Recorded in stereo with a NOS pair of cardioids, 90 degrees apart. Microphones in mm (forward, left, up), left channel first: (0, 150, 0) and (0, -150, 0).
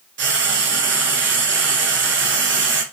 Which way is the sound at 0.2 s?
40° right.